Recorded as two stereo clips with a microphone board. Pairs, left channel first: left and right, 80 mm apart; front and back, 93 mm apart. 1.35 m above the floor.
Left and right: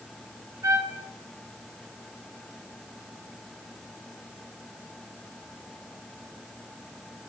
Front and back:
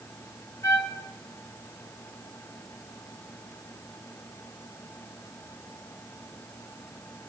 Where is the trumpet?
45° right, 0.9 m.